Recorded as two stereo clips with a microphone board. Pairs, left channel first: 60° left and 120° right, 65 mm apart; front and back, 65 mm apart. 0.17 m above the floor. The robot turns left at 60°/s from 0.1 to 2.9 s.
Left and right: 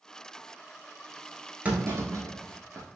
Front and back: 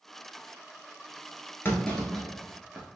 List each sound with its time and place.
1.6 s a clunk: 55° right, 0.9 m; by 2.9 s 130° right, 0.9 m